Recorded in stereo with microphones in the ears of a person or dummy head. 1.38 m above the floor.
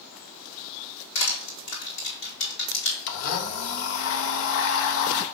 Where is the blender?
75° left (ahead or behind), 1.1 m.